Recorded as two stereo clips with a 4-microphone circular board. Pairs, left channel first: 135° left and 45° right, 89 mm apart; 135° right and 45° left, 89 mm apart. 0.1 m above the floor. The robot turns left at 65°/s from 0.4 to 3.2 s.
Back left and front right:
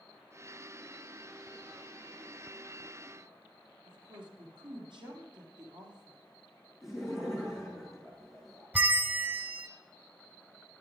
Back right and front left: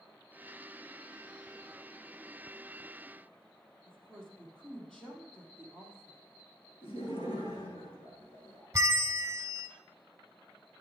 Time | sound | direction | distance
3.9 | a woman speaking | 50° right | 3 m
6.8 | laughter | 130° right | 5.5 m
8.7 | a bell | 10° left | 0.9 m